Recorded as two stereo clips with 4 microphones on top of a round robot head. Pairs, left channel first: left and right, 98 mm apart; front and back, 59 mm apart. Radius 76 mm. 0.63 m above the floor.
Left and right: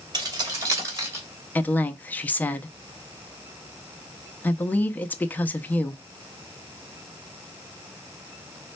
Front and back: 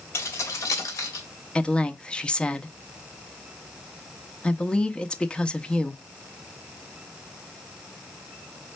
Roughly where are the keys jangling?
Ahead right.